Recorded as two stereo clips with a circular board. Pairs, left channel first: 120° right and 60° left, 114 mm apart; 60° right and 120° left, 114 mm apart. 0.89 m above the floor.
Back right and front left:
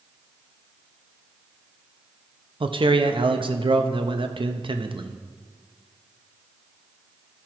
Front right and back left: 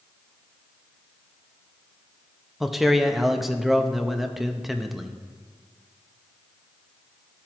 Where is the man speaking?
30° left, 0.6 m.